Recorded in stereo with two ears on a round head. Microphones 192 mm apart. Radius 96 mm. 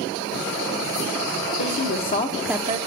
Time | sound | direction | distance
1.6 | a woman speaking | 60° left (ahead or behind) | 1.4 m